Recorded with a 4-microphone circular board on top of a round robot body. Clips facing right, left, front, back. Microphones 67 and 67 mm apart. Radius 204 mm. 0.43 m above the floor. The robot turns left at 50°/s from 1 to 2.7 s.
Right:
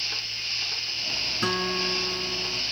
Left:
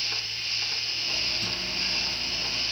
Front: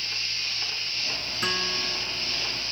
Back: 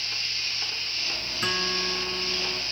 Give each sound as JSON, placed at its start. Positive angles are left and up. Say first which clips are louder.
{"t": 1.4, "sound": "a guitar", "louder": "right 8 dB, back 1 dB", "azimuth_deg": -85}